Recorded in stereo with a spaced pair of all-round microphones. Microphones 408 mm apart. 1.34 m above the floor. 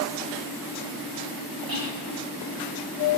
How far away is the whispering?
About 3 m.